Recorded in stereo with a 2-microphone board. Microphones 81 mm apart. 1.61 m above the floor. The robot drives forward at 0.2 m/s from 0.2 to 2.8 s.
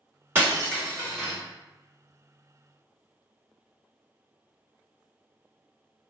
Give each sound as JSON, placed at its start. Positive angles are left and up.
{"t": 0.3, "sound": "breaking glass", "side_deg": -25, "distance_m": 1.5}